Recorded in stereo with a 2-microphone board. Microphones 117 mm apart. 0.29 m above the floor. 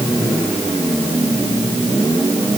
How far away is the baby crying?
No baby crying in this recording.